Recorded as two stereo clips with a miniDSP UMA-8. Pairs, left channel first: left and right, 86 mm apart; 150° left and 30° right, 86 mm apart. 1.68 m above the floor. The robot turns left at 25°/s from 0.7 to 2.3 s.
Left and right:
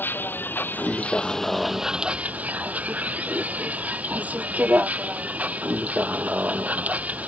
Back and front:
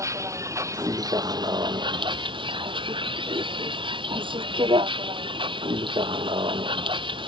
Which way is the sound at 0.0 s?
25° left.